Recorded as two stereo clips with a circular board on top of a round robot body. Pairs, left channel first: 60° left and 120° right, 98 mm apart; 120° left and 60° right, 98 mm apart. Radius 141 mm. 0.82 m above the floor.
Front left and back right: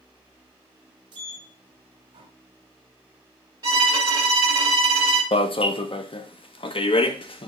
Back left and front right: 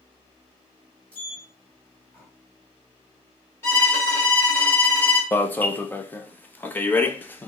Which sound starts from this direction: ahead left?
An alarm, at 5.3 s.